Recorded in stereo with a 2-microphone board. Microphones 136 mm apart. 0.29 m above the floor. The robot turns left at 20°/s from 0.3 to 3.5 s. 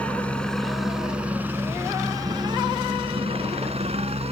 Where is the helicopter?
10° left; by 4.3 s 55° right.